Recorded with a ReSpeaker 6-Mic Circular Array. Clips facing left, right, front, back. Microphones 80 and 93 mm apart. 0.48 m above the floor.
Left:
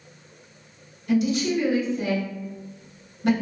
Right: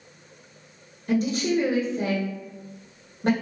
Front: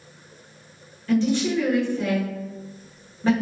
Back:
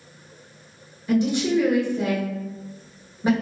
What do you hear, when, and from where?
1.1 s a woman speaking: 115° right, 0.9 m